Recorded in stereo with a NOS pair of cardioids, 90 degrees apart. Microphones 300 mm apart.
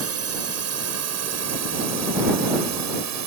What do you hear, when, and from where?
0.0 s a drone: 55° right; by 3.3 s 65° right